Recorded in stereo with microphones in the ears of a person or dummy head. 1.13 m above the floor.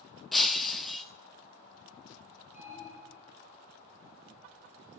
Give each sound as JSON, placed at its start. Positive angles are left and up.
{"t": 0.3, "sound": "breaking glass", "side_deg": 5, "distance_m": 0.8}
{"t": 2.5, "sound": "an alarm", "side_deg": -5, "distance_m": 6.0}